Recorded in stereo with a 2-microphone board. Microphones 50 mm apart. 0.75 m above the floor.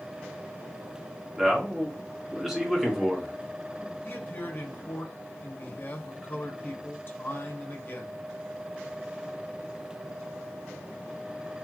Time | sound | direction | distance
1.4 | a man speaking | 5° right (ahead or behind) | 1.5 m
4.0 | a man speaking | 40° left (ahead or behind) | 1.4 m